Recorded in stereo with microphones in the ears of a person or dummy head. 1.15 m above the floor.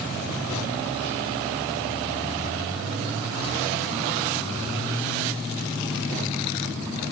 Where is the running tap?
No running tap in this recording.